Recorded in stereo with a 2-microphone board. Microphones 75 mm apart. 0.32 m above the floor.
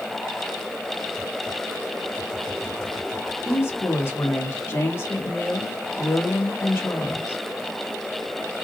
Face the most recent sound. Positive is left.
turn(degrees=35)  # may be behind; listen again after turning